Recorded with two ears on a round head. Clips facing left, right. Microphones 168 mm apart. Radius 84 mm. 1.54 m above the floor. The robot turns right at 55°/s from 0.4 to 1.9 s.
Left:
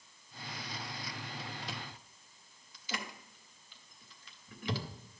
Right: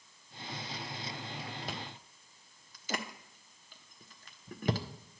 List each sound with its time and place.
1.7 s chewing: 45° right (ahead or behind), 0.6 m; by 4.8 s 40° right (ahead or behind), 0.6 m